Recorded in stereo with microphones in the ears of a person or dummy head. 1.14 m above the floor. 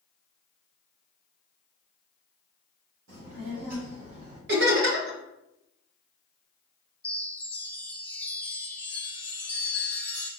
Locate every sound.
3.1 s a child speaking: 75° right (ahead or behind), 1.2 m; by 4.4 s 50° right (ahead or behind), 2 m
4.5 s laughter: 65° right (ahead or behind), 1.1 m
7.0 s a chime: 10° left (ahead or behind), 0.6 m